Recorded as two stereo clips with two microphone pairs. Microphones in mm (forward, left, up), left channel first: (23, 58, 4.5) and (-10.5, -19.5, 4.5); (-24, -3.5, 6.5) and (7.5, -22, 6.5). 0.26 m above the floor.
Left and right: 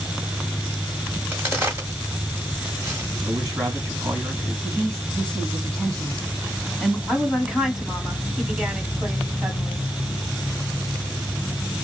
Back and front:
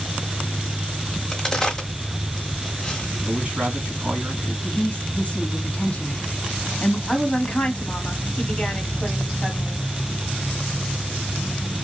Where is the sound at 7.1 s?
175° left, 1.5 m.